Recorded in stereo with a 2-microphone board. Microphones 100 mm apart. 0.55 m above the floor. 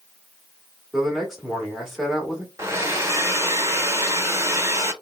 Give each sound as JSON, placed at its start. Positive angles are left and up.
{"t": 0.9, "sound": "a man speaking", "side_deg": 0, "distance_m": 1.4}
{"t": 2.6, "sound": "a hair dryer", "side_deg": -25, "distance_m": 0.7}